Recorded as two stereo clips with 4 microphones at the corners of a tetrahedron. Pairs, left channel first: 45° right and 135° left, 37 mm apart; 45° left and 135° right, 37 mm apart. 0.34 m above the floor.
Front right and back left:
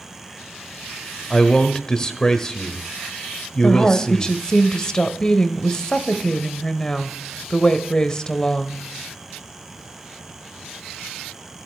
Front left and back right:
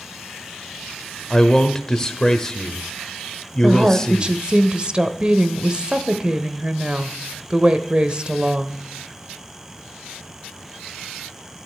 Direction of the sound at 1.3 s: 5° right.